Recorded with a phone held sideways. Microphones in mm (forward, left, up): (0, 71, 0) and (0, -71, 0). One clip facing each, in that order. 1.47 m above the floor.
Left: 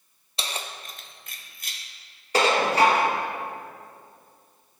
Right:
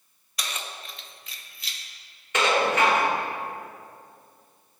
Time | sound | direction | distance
0.4 | keys jangling | 25° left (ahead or behind) | 0.6 m
2.3 | dishes clattering | 35° left (ahead or behind) | 1.1 m